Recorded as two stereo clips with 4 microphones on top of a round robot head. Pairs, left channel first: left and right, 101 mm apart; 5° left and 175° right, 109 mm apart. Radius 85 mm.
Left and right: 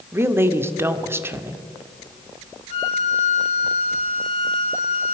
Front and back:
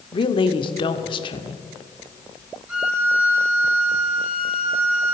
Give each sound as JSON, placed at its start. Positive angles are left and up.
{"t": 0.1, "sound": "a woman speaking", "azimuth_deg": -30, "distance_m": 1.3}
{"t": 2.7, "sound": "a violin", "azimuth_deg": 110, "distance_m": 5.0}